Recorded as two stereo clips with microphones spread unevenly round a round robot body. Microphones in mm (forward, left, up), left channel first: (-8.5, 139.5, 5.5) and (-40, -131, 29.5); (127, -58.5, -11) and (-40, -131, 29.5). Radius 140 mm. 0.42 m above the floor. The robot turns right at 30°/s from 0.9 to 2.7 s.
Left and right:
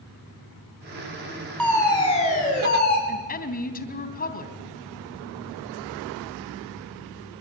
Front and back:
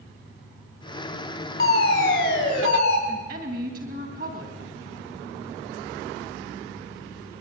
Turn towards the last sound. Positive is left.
turn(degrees=140)